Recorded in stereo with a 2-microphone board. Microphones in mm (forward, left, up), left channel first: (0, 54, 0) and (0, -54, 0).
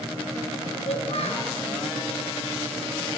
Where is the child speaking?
80° left, 4.5 m.